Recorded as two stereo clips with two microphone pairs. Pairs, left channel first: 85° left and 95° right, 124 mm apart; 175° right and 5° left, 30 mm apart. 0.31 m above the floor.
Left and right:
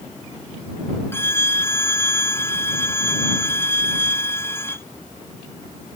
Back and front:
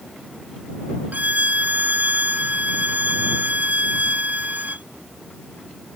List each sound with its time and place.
1.1 s a violin: 15° left